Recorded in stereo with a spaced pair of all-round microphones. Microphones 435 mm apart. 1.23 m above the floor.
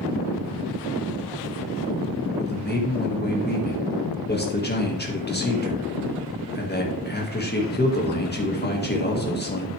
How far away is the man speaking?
About 1.7 m.